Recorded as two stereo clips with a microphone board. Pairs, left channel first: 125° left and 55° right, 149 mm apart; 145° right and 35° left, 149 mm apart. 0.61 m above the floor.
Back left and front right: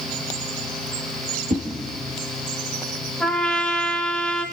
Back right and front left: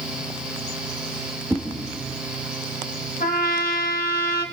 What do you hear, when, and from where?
1.5 s a whoosh: 40° right, 2 m
3.2 s a trumpet: 150° right, 2.5 m